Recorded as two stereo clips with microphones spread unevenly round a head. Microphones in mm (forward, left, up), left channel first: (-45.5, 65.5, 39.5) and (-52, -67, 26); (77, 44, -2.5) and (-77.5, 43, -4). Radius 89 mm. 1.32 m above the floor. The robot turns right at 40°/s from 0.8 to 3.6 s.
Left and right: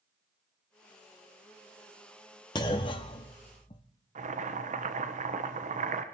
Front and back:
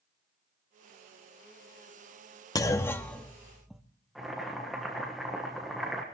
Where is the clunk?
50° left, 0.8 m; by 3.8 s 95° left, 0.8 m.